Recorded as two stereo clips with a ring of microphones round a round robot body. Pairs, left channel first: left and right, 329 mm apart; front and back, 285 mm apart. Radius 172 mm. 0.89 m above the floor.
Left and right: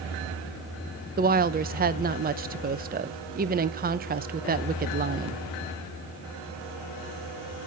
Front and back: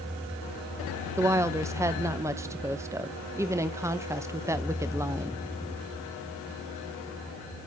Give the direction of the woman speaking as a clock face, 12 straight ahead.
4 o'clock.